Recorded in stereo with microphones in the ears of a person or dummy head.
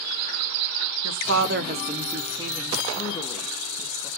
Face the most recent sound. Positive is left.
turn(degrees=20)  # may be behind; listen again after turning